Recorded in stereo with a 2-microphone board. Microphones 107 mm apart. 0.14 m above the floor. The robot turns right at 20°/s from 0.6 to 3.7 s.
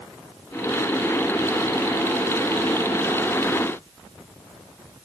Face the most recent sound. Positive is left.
No sound to turn to.